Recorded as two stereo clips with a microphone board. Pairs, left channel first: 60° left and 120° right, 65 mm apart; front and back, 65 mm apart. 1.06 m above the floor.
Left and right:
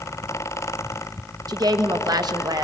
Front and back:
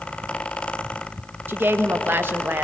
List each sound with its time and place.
1.5 s a woman speaking: 125° right, 1.1 m